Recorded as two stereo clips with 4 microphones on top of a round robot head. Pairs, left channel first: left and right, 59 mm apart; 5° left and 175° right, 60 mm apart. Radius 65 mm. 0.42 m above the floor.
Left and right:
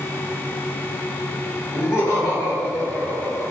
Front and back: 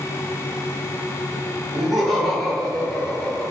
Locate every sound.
1.7 s laughter: 100° left, 1.9 m; by 3.5 s 70° left, 1.4 m